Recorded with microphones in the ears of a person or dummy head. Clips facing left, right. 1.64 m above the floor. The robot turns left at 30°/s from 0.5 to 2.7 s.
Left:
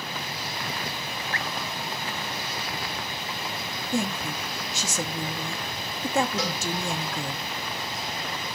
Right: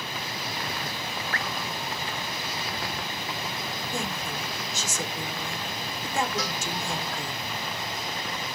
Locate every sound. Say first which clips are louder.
1.3 s dripping: left 1 dB; 20° left (ahead or behind), 0.6 m
3.9 s a woman speaking: left 7 dB; 55° left (ahead or behind), 1.9 m
6.4 s a cowbell: left 3 dB; 70° left (ahead or behind), 5 m